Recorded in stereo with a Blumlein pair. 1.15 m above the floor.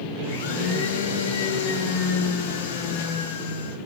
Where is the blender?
50° left, 1.2 m.